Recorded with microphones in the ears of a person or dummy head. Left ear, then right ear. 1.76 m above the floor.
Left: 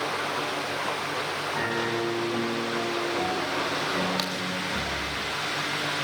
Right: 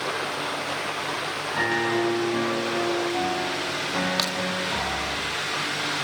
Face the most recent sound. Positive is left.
turn(degrees=-5)  # may be behind; listen again after turning